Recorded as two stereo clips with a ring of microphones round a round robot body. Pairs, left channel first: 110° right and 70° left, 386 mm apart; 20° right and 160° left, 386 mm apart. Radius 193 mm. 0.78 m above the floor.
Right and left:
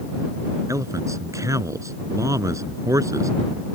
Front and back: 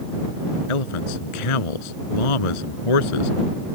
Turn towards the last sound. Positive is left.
turn(degrees=-15)